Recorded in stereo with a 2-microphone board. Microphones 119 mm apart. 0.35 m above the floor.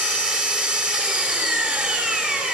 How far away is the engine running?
About 1.4 m.